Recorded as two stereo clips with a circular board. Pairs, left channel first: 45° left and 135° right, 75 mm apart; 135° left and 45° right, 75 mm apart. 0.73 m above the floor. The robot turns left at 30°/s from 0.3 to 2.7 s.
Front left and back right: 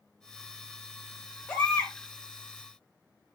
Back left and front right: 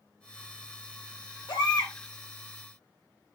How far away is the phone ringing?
I don't hear a phone ringing.